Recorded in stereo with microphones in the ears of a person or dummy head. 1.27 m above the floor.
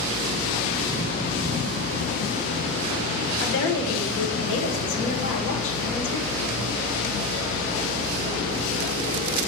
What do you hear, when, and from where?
3.4 s a woman speaking: 70° left (ahead or behind), 1.1 m